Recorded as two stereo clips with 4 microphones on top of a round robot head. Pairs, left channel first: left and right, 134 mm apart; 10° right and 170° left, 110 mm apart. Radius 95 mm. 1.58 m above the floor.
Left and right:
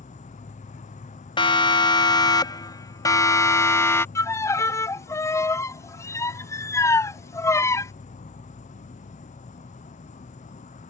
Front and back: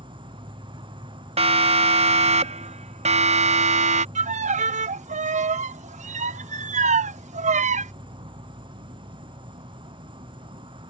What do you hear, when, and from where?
0.0 s an insect: 125° left
1.4 s a siren: 140° left; by 4.0 s 160° left
4.2 s a violin: 160° left